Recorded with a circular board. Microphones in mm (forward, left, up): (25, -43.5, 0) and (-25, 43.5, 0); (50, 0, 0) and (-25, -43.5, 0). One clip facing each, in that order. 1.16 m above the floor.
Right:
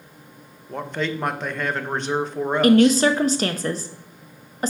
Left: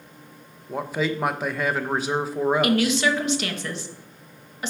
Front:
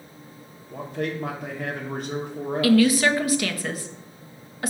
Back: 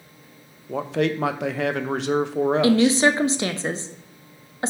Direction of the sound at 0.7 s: 155° right.